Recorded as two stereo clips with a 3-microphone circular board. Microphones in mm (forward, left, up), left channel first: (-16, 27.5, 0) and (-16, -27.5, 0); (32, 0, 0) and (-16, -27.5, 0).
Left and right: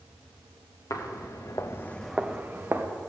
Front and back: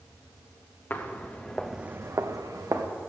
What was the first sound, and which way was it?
Footsteps, 85° left.